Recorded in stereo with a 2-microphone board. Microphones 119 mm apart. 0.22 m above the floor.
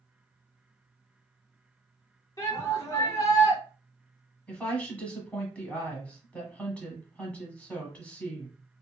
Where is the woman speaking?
10° left (ahead or behind), 1.3 m.